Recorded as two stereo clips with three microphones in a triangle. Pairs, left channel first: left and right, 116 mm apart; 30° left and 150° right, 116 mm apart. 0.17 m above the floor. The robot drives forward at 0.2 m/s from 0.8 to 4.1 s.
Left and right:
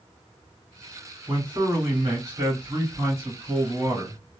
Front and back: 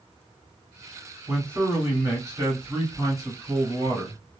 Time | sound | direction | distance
1.3 | a man speaking | 100° right | 1.8 m